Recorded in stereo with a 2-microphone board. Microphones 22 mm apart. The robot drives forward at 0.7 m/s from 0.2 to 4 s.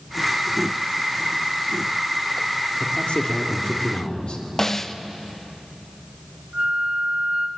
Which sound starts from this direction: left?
A man speaking, at 2.8 s.